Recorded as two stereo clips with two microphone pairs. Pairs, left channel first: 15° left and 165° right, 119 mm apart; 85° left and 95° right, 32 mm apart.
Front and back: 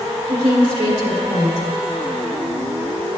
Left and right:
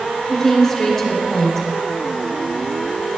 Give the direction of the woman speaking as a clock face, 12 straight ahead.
6 o'clock.